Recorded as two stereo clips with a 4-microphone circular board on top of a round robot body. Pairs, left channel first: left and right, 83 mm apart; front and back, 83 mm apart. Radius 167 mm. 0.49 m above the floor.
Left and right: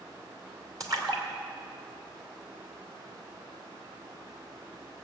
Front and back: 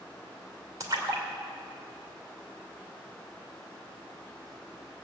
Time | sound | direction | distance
0.8 | a splash | 130° right | 2.5 m